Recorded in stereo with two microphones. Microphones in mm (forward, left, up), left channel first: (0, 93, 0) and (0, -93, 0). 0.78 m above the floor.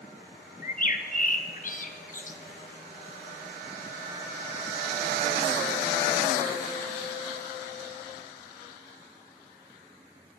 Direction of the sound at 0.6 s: 45° left (ahead or behind).